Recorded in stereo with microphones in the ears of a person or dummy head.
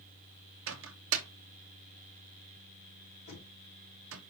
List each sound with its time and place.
0.7 s a microwave: 70° right (ahead or behind), 0.7 m
3.3 s knocking: 50° left (ahead or behind), 3 m